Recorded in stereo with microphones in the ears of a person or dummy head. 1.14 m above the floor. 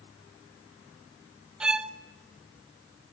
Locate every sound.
1.6 s a violin: 10° right (ahead or behind), 0.6 m